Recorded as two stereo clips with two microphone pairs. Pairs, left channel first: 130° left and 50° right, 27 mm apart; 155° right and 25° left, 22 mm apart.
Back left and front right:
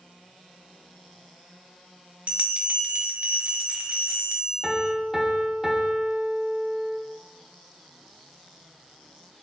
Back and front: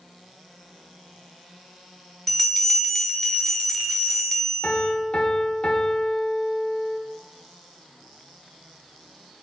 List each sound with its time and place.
2.3 s a bell: 80° right, 0.6 m
4.6 s a piano: 120° right, 0.5 m